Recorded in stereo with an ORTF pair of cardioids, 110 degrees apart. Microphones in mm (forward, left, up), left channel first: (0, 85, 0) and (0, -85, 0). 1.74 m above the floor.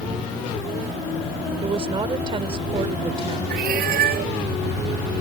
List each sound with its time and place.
1.6 s a woman speaking: 30° right
3.5 s a cat meowing: 60° right